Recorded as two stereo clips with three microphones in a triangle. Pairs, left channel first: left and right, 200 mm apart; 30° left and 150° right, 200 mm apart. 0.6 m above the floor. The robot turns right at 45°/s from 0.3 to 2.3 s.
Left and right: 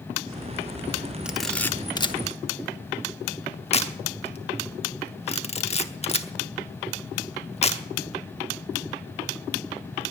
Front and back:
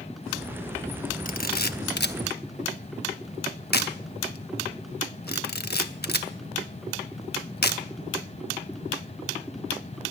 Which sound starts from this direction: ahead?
A camera shutter, at 1.2 s.